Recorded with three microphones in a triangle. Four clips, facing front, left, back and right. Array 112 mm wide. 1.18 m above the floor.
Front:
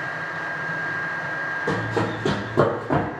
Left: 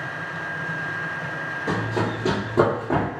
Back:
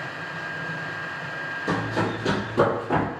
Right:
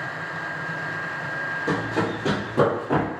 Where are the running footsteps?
5° right, 1.6 m; by 3.1 s 35° left, 1.3 m.